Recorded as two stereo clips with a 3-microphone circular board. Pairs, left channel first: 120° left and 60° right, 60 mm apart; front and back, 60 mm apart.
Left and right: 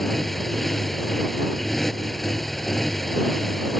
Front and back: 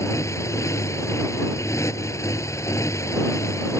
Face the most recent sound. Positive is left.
turn(degrees=35)